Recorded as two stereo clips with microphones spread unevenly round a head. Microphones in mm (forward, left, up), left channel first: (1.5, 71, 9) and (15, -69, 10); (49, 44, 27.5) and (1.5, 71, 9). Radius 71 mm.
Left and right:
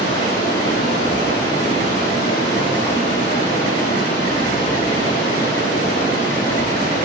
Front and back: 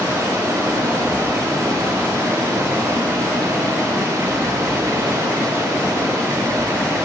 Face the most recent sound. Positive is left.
turn(degrees=140)